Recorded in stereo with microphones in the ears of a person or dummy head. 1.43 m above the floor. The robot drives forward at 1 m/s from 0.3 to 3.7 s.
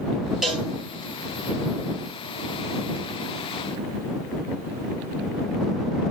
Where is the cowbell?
Centre (ahead or behind), 1.6 m.